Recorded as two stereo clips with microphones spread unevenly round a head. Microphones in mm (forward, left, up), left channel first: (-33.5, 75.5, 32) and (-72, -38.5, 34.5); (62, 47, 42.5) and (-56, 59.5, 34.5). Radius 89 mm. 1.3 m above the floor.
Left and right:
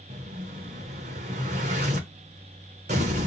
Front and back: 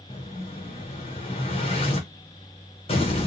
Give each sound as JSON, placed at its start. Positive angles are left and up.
{"t": 0.1, "sound": "an explosion", "azimuth_deg": -60, "distance_m": 0.7}